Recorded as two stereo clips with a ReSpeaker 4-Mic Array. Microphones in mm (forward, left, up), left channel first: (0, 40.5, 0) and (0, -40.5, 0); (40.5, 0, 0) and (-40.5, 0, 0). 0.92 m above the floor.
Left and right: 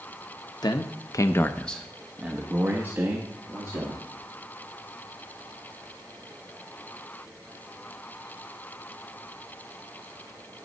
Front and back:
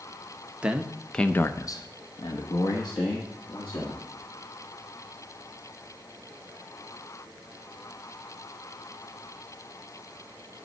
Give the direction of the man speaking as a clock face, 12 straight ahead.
8 o'clock.